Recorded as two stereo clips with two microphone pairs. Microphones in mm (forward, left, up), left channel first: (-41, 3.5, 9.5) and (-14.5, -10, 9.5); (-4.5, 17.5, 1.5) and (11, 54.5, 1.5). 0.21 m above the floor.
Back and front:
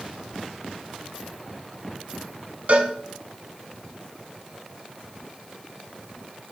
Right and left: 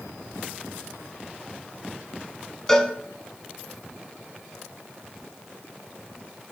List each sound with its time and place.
2.7 s a cowbell: 35° right, 1.1 m